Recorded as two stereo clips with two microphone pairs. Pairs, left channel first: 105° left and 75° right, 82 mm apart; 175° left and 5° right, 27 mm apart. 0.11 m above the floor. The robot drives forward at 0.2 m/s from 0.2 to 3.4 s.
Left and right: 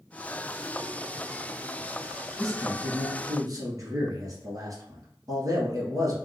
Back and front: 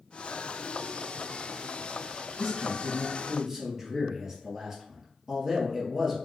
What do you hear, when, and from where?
2.4 s a man speaking: 70° right, 1.5 m; by 6.2 s 80° right, 1.4 m